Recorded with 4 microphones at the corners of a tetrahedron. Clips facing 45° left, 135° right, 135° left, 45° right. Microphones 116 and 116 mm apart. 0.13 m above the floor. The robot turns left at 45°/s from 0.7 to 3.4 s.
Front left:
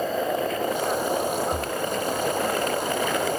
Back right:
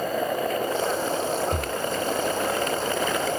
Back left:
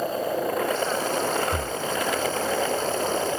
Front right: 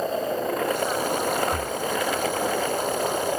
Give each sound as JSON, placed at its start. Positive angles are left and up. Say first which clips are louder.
{"t": 1.5, "sound": "breathing", "louder": "even, front right 1 dB", "azimuth_deg": -160}